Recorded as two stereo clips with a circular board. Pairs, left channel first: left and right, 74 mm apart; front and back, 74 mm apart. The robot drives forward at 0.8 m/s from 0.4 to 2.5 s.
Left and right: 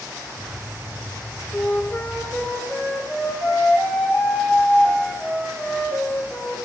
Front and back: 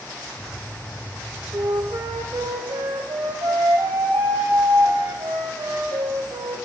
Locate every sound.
1.5 s a flute: 155° left, 0.7 m; by 6.6 s 170° left, 1.4 m